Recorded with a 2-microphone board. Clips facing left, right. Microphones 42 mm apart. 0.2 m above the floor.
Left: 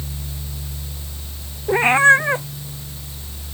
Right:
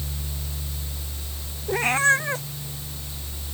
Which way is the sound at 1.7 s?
30° left (ahead or behind).